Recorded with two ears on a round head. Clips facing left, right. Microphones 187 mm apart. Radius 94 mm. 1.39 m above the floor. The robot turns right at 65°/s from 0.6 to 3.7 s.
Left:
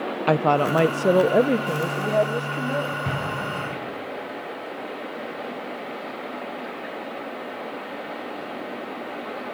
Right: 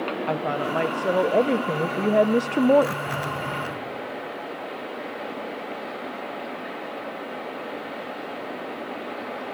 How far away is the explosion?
About 5 m.